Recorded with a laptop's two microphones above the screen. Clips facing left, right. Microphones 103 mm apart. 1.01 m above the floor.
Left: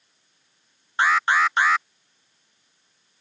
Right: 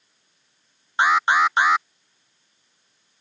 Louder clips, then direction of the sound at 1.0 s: Right 2 dB; 20° right (ahead or behind).